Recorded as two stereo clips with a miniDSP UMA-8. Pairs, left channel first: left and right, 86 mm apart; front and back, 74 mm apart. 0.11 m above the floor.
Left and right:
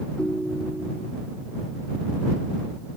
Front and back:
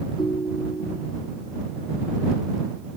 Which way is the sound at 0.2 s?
10° left.